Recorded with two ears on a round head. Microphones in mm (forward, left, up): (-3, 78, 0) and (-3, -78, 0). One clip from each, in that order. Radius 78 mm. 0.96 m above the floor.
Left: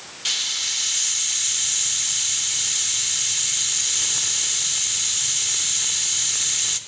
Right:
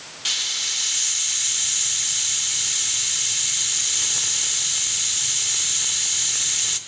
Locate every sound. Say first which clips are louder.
0.2 s a hiss: even; centre (ahead or behind), 0.8 m